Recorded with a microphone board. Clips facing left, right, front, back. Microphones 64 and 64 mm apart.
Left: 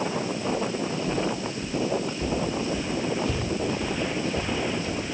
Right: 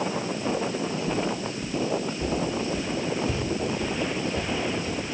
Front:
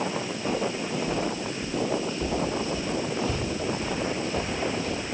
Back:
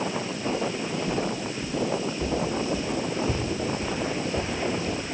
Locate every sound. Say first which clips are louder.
0.5 s footsteps: right 1 dB, even; 40° right, 1.1 m; by 5.0 s 150° right, 2.5 m